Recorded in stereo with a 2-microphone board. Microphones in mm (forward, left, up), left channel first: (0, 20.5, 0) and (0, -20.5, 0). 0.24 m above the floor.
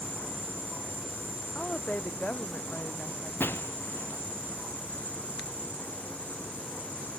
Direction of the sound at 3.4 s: 60° left (ahead or behind).